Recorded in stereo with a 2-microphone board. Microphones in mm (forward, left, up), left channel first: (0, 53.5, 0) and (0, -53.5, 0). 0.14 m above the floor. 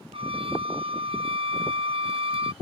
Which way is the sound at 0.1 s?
60° right (ahead or behind).